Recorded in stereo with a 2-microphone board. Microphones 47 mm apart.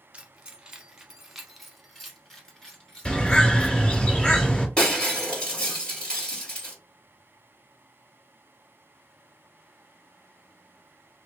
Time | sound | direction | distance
0.1 | keys jangling | 25° right (ahead or behind) | 0.8 m
3.0 | a bird | 20° left (ahead or behind) | 2 m
4.8 | breaking glass | 15° left (ahead or behind) | 1.8 m